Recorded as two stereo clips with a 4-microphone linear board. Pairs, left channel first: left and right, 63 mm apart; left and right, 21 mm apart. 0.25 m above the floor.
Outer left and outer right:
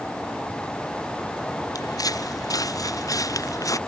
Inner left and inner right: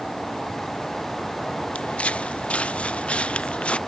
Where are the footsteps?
85° left; by 3.8 s 65° left (ahead or behind).